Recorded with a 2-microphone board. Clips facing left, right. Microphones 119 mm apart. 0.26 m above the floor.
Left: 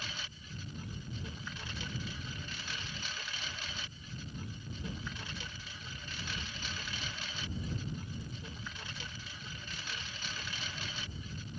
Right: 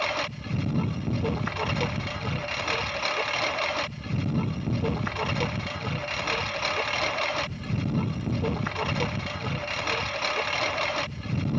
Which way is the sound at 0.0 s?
75° right (ahead or behind).